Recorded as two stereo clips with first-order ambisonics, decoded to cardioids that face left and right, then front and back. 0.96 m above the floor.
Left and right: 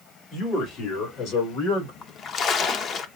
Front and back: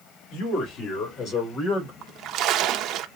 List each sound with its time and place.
0.3 s a man speaking: 30° left, 2.5 m; by 1.9 s 50° left, 4 m
2.0 s a splash: 145° left, 0.6 m